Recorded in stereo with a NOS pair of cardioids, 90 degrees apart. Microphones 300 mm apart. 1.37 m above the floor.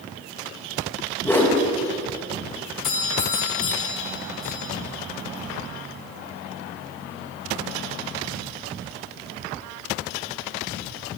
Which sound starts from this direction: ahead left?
A doorbell, at 2.8 s.